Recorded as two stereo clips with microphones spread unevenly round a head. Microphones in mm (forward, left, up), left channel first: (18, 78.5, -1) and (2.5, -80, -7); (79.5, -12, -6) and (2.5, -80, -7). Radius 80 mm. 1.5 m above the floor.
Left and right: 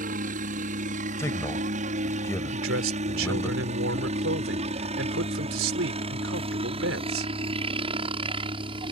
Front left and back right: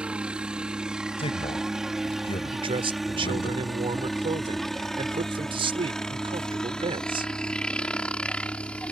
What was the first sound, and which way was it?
A helicopter, 60° right.